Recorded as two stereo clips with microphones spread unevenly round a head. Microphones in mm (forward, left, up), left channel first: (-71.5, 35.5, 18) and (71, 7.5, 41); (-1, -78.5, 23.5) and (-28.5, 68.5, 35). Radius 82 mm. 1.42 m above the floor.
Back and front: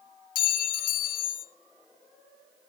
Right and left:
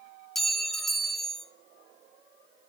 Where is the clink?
170° right, 0.9 m.